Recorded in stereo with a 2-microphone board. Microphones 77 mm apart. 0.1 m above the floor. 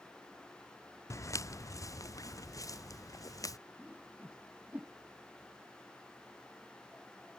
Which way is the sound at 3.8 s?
20° right (ahead or behind).